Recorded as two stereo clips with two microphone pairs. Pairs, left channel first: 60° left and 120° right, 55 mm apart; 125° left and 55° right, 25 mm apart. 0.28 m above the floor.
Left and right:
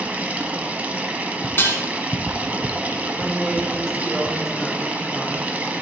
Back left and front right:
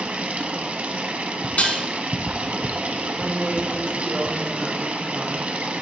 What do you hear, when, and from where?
0.0 s running water: 60° right, 0.9 m
1.6 s dishes clattering: 110° left, 1.6 m
3.1 s a woman speaking: 40° right, 1.6 m